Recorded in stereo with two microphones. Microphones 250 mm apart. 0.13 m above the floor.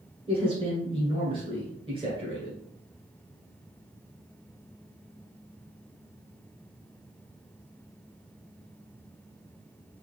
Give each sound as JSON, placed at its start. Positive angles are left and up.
{"t": 0.3, "sound": "a man speaking", "side_deg": -20, "distance_m": 1.7}